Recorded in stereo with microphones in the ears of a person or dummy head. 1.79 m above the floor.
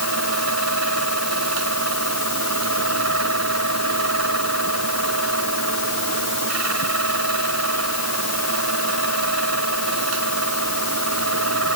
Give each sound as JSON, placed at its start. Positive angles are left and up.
{"t": 0.0, "sound": "a fan", "side_deg": -85}